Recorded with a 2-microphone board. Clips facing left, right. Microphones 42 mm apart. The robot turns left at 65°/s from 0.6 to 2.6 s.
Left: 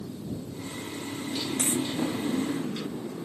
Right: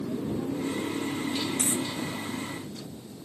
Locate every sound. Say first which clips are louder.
0.0 s a motorcycle: right 6 dB; 115° right; by 3.3 s 115° left
1.6 s a dropped coin: left 1 dB; 30° left (ahead or behind); by 1.9 s 45° left (ahead or behind)